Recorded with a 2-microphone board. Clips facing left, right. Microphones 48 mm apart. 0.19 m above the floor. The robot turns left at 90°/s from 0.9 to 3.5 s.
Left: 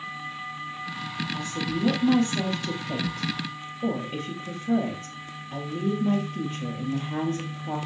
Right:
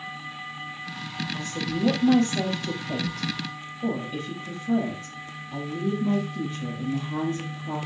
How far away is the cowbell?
I don't hear a cowbell.